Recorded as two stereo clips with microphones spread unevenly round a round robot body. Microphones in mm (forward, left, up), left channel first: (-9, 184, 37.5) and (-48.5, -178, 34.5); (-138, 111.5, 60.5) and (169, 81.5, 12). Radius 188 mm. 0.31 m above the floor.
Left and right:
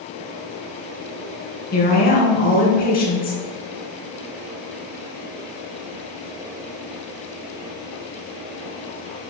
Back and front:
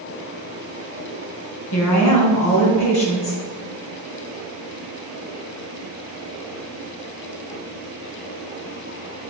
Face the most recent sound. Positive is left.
turn(degrees=150)